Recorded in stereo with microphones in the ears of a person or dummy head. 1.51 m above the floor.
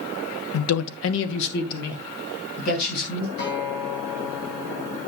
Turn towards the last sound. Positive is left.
turn(degrees=60)  # may be behind; listen again after turning